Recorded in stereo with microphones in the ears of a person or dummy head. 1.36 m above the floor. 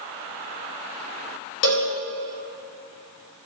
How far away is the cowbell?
About 1.0 m.